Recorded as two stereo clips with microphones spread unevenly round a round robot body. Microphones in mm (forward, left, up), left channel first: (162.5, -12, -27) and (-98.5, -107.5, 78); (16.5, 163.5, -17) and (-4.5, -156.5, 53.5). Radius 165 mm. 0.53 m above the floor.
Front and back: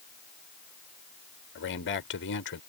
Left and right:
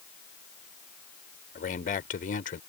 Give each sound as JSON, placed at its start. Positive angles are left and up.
{"t": 1.6, "sound": "a man speaking", "azimuth_deg": 35}